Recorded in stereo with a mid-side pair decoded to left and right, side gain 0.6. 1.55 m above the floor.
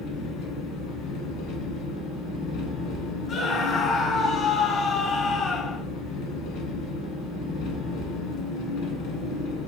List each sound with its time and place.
0.0 s an engine running: 65° left, 1.0 m
3.3 s a scream: 45° left, 0.6 m